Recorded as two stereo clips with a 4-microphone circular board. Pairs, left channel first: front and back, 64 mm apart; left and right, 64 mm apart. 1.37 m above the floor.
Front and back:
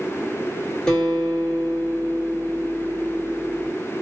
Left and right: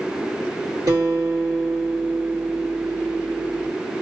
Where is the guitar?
80° right, 1.6 m.